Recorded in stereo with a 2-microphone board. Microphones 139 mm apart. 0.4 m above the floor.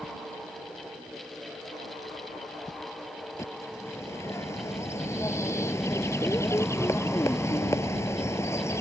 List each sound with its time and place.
3.4 s a bird: 20° left (ahead or behind)